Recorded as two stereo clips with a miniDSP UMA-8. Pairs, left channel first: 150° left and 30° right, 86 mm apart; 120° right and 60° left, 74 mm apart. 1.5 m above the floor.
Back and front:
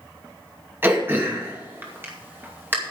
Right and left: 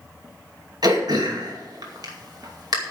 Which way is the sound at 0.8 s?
35° left.